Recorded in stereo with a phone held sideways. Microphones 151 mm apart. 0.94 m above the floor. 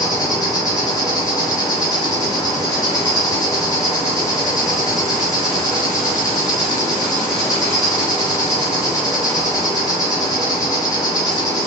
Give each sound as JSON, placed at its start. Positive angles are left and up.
{"t": 0.0, "sound": "an insect", "side_deg": 25, "distance_m": 1.1}